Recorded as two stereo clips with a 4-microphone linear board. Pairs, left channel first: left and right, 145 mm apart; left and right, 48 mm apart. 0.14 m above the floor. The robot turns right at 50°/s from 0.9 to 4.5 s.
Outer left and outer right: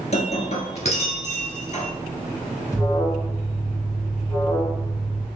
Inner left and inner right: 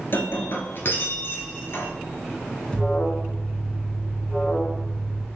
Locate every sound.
0.1 s breaking glass: 60° left, 1.0 m; by 1.9 s 110° left, 1.0 m
2.7 s an alarm: 20° left (ahead or behind), 1.2 m; by 5.2 s 15° left (ahead or behind), 1.2 m